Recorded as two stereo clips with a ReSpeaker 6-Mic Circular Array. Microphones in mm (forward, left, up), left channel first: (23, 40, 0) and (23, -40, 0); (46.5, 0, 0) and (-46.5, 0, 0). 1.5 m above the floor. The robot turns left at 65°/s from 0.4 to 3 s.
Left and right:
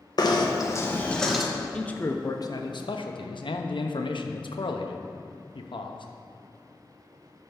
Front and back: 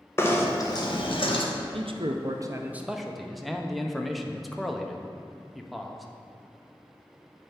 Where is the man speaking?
170° left, 0.7 m; by 6.1 s 90° left, 0.7 m.